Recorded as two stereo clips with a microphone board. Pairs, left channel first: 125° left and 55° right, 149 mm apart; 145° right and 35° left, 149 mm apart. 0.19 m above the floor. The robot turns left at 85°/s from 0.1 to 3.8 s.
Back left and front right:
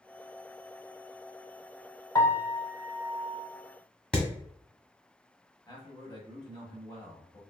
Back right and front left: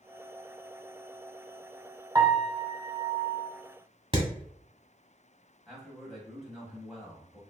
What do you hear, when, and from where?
2.1 s a piano: 80° left, 0.8 m; by 3.5 s 35° right, 0.8 m
4.1 s hammering: 45° left, 1.2 m
5.7 s a man speaking: 125° left, 1.1 m